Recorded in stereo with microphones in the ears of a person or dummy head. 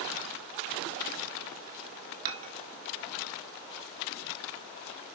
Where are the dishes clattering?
45° right (ahead or behind), 2.0 m.